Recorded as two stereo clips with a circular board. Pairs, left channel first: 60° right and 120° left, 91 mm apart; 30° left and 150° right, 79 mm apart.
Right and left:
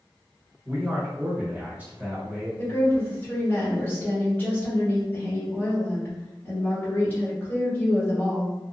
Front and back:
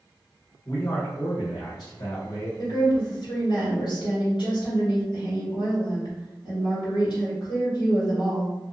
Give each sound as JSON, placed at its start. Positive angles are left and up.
{"t": 0.7, "sound": "a man speaking", "azimuth_deg": 50, "distance_m": 1.2}
{"t": 2.6, "sound": "a woman speaking", "azimuth_deg": 10, "distance_m": 1.4}